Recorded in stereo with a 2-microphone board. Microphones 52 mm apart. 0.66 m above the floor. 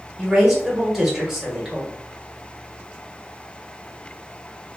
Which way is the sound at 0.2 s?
5° right (ahead or behind).